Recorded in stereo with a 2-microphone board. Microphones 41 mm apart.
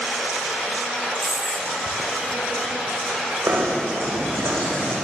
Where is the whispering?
70° right (ahead or behind), 3.5 m.